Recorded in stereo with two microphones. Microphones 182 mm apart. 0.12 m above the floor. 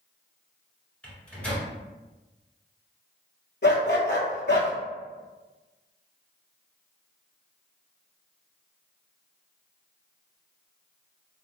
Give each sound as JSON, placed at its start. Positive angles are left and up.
{"t": 1.0, "sound": "a microwave", "side_deg": 5, "distance_m": 1.2}
{"t": 3.6, "sound": "a dog barking", "side_deg": 70, "distance_m": 0.7}